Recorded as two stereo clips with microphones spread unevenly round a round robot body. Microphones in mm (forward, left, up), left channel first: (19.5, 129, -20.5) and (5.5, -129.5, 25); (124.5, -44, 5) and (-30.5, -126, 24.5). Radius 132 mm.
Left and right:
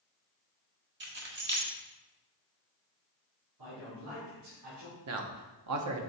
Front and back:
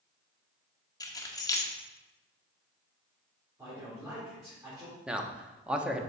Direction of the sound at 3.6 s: 75° right.